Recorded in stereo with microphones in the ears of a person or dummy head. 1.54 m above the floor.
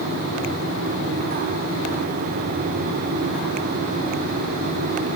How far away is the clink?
I don't hear a clink.